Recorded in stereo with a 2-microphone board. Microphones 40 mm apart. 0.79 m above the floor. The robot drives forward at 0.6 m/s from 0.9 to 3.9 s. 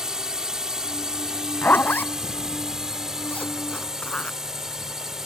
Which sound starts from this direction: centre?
A drone, at 0.0 s.